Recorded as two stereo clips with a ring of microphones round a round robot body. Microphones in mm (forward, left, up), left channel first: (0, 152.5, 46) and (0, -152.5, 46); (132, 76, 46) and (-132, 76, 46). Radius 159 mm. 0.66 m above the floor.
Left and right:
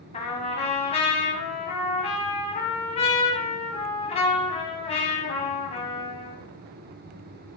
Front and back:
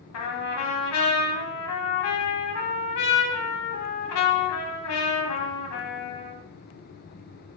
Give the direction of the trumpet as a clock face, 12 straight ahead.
11 o'clock.